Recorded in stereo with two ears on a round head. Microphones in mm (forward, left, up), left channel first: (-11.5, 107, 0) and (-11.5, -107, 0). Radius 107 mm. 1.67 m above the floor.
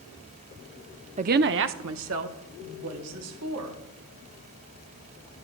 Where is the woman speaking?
25° right (ahead or behind), 0.5 m; by 3.8 s 65° right (ahead or behind), 3.5 m.